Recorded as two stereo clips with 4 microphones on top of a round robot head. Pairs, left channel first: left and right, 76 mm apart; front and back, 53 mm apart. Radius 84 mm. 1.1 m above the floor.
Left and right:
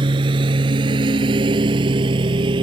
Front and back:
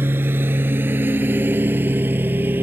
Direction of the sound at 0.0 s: 120° right.